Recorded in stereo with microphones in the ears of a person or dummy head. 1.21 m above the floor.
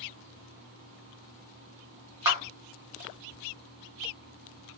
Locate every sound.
2.2 s a clap: 10° right (ahead or behind), 1.1 m